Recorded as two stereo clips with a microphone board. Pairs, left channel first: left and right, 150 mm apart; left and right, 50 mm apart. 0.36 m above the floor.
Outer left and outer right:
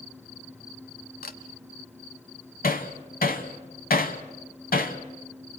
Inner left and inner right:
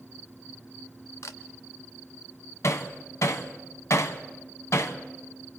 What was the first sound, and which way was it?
A camera shutter, 85° left.